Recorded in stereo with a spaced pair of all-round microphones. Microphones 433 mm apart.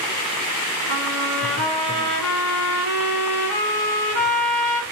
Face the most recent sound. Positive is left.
turn(degrees=-35)  # may be behind; listen again after turning